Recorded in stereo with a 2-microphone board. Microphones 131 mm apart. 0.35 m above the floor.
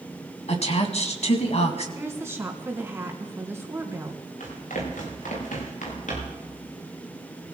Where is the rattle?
No rattle in this recording.